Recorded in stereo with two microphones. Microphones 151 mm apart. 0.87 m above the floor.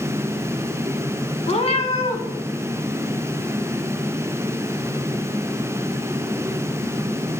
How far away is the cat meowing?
About 1.0 m.